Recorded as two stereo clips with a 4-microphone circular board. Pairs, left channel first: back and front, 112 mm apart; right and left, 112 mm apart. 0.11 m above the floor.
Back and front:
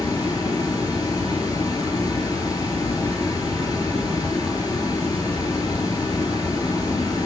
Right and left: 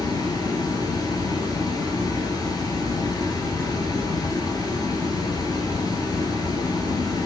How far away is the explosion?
No explosion in this recording.